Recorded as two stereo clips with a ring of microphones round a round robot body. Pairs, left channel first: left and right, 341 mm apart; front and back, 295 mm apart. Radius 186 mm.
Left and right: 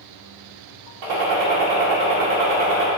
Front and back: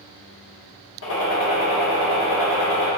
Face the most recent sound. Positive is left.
turn(degrees=-55)